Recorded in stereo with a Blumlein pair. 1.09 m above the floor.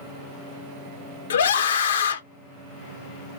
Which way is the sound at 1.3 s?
65° left.